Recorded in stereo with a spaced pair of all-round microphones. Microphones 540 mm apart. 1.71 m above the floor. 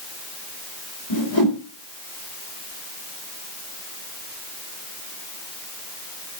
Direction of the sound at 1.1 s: 55° left (ahead or behind).